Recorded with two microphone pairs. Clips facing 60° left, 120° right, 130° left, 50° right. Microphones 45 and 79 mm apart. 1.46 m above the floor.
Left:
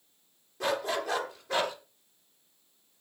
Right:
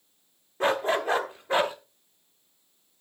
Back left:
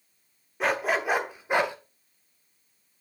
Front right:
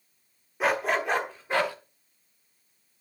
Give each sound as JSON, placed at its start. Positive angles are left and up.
{"t": 0.6, "sound": "a dog barking", "azimuth_deg": -140, "distance_m": 1.3}